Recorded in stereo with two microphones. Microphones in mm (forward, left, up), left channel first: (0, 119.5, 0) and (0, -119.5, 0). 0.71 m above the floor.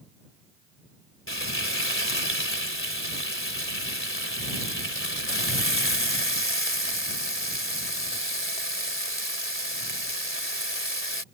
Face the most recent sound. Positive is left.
turn(degrees=60)  # may be behind; listen again after turning